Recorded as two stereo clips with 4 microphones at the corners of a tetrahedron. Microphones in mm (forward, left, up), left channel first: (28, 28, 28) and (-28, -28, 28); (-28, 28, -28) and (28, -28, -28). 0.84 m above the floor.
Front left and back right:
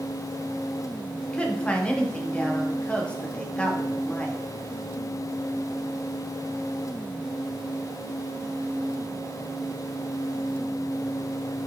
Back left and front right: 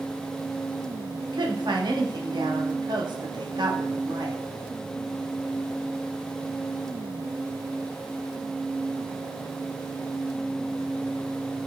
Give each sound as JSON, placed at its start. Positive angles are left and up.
{"t": 1.2, "sound": "a woman speaking", "azimuth_deg": -30, "distance_m": 1.1}